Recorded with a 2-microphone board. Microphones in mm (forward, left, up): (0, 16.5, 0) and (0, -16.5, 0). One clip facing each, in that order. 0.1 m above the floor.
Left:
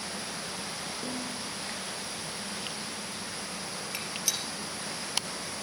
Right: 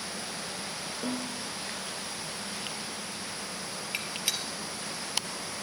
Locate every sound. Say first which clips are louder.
1.0 s a snare drum: right 4 dB; 40° right (ahead or behind), 2.5 m
3.9 s a gunshot: right 2 dB; 30° right (ahead or behind), 2.5 m